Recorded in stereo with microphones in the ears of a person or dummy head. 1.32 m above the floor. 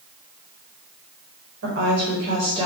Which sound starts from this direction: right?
A woman speaking, at 1.6 s.